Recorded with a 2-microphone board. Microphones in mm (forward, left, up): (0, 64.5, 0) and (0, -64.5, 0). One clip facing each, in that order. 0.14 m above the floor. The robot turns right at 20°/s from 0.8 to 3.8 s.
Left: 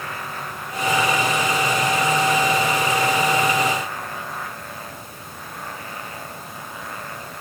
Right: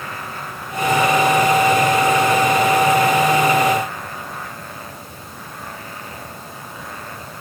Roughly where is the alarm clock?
No alarm clock in this recording.